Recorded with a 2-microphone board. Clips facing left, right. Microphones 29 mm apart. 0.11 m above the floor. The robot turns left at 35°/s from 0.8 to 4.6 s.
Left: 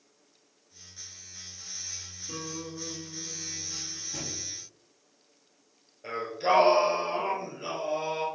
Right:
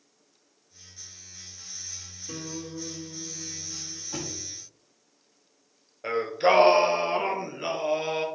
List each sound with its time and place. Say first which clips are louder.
2.3 s a guitar: right 2 dB; 35° right, 3 m; by 4.0 s 95° right, 3 m
4.1 s a thud: right 4 dB; 75° right (ahead or behind), 2.5 m; by 4.5 s 65° right (ahead or behind), 2.5 m
6.0 s singing: right 5 dB; 35° right (ahead or behind), 1.2 m